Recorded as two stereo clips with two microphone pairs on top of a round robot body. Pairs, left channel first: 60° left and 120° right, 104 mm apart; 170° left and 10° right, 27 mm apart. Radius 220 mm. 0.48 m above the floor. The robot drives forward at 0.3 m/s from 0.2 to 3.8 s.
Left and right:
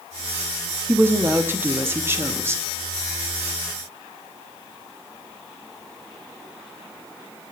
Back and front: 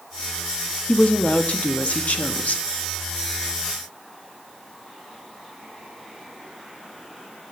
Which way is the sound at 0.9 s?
175° left.